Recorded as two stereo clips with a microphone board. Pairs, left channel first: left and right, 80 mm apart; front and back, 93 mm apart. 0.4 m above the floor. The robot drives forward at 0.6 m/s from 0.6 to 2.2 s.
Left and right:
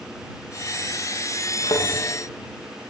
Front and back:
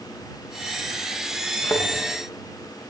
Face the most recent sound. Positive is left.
turn(degrees=70)